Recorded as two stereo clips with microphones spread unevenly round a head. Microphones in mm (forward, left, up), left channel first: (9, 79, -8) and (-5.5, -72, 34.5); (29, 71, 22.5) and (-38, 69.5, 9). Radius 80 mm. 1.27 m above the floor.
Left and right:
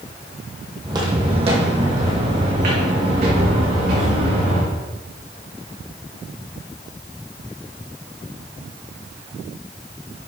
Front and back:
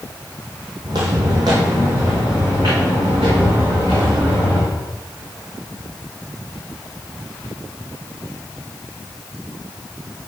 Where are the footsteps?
140° right, 1.9 m; by 4.7 s 105° right, 4.5 m.